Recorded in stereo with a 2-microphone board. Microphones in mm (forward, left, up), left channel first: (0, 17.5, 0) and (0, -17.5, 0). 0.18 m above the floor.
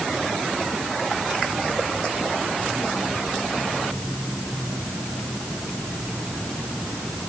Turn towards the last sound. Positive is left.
No sound to turn to.